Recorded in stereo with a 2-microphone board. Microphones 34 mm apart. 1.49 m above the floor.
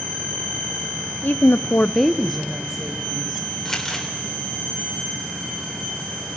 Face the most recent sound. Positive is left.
turn(degrees=15)  # may be behind; listen again after turning